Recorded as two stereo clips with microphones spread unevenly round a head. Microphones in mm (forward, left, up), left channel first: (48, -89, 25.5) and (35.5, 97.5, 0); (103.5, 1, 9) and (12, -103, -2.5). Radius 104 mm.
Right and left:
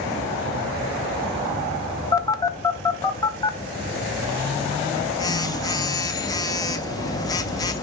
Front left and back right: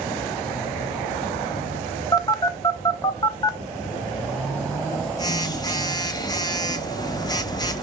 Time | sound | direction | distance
2.1 | a phone buzzing | 15° right | 1.0 m